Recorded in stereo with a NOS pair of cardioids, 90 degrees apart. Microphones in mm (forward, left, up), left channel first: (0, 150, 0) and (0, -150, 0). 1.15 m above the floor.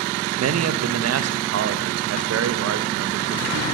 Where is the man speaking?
60° right, 1.5 m.